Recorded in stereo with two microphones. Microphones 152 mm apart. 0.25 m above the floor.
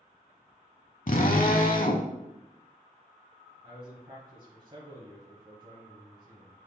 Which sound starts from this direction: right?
A man speaking, at 3.6 s.